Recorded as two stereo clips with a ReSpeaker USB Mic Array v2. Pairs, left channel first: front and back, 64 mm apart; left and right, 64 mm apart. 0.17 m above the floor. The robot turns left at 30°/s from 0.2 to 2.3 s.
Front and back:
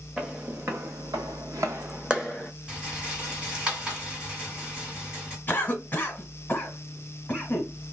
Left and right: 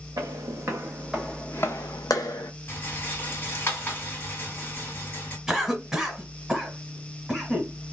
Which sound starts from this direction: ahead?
A cough, at 5.5 s.